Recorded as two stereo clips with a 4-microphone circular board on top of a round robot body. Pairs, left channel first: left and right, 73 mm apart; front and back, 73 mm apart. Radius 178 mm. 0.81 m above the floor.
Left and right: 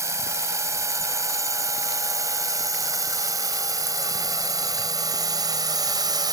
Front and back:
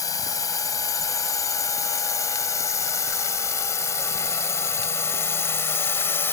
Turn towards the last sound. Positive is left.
turn(degrees=-60)